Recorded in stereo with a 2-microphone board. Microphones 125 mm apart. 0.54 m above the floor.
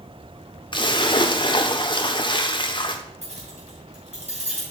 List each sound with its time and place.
0.7 s a splash: 40° left (ahead or behind), 0.7 m
3.2 s keys jangling: 75° right (ahead or behind), 4 m